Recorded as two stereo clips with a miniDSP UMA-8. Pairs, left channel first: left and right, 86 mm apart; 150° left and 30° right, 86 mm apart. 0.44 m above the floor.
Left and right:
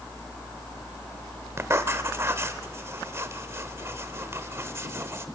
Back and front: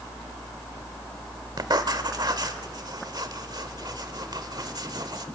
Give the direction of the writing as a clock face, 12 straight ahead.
1 o'clock.